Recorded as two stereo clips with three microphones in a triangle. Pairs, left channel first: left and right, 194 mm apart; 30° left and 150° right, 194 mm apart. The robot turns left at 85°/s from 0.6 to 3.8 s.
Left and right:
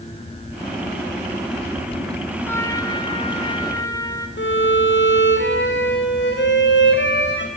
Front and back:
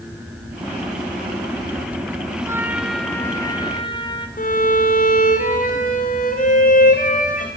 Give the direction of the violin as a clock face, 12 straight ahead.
9 o'clock.